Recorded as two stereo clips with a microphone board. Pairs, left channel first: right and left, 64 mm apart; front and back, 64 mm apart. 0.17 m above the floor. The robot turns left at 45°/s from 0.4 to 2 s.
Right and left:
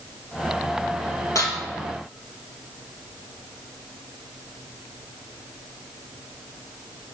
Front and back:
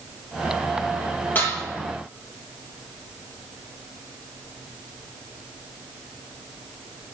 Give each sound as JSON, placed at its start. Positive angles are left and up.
{"t": 1.4, "sound": "dishes clattering", "azimuth_deg": -60, "distance_m": 3.0}